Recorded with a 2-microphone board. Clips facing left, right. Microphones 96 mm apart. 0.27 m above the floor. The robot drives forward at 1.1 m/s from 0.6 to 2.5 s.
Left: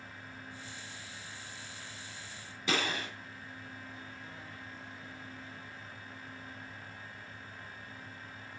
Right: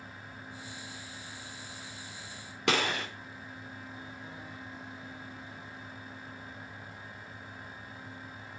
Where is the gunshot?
65° right (ahead or behind), 2.5 m.